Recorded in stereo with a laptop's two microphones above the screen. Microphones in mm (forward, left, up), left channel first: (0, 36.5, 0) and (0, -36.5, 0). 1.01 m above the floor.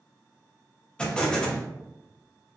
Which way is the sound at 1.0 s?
15° left (ahead or behind).